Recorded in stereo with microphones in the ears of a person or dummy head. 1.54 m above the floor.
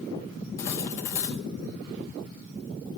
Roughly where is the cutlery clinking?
Centre.